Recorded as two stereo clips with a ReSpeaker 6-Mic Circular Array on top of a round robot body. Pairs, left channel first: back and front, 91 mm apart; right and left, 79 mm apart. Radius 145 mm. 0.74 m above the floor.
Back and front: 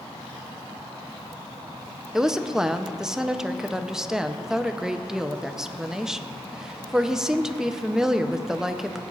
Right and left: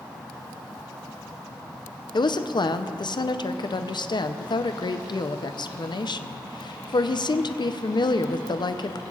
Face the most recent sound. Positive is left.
turn(degrees=-85)